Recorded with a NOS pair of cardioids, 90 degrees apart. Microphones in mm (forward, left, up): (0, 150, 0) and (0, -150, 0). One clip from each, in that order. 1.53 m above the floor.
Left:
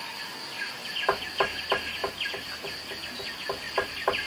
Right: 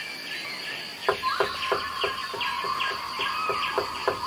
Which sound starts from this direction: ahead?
Knocking, at 1.1 s.